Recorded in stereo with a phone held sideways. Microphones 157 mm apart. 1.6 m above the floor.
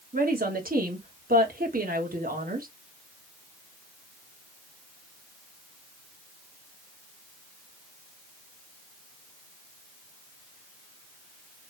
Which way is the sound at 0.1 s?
70° right (ahead or behind).